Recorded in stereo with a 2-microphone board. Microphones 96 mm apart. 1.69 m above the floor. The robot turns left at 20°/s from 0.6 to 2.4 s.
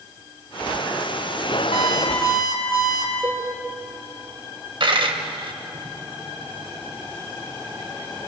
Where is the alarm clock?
80° left, 8 m.